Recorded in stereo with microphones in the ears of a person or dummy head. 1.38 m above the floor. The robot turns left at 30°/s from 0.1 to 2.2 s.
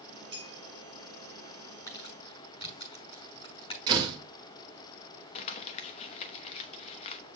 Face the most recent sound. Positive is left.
turn(degrees=40)  # may be behind; listen again after turning